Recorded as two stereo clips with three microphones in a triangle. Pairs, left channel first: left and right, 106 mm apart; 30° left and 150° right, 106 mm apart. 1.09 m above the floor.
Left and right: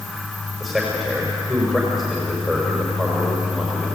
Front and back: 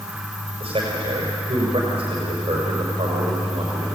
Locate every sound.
0.6 s a man speaking: straight behind, 5.5 m